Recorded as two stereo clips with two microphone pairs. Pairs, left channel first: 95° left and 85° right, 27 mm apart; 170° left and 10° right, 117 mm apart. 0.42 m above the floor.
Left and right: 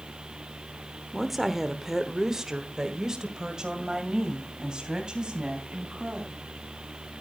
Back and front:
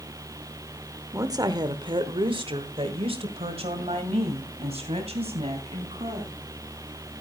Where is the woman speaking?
5° left, 1.0 m; by 6.4 s 30° right, 3.5 m.